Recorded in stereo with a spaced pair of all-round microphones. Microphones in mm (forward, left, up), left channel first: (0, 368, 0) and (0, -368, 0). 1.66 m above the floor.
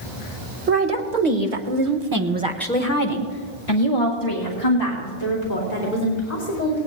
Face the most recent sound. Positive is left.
turn(degrees=70)  # may be behind; listen again after turning